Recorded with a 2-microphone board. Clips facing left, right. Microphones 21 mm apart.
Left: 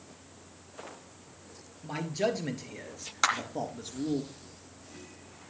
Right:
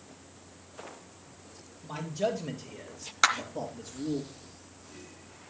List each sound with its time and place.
1.8 s a man speaking: 75° left (ahead or behind), 5 m; by 4.2 s 70° left (ahead or behind), 4 m
3.2 s a clap: 5° right (ahead or behind), 2.5 m